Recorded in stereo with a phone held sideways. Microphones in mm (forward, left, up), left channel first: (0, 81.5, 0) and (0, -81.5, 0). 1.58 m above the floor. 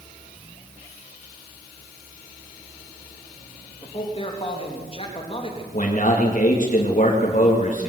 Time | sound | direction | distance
3.8 | a man speaking | 35° left (ahead or behind) | 3 m
5.7 | a man speaking | 45° left (ahead or behind) | 2.5 m